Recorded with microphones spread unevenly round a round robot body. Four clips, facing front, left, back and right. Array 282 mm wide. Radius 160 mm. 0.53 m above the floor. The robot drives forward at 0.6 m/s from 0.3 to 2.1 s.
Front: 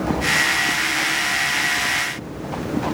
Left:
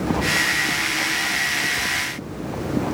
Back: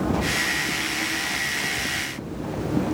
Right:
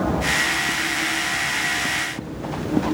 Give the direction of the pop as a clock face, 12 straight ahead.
I don't hear a pop.